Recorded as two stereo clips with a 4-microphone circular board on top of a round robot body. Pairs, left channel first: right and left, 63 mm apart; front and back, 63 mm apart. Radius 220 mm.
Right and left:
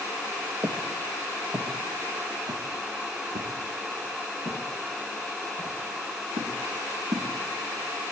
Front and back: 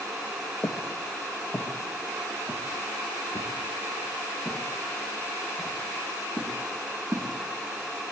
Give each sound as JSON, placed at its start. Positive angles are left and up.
{"t": 0.6, "sound": "footsteps", "azimuth_deg": 45, "distance_m": 4.0}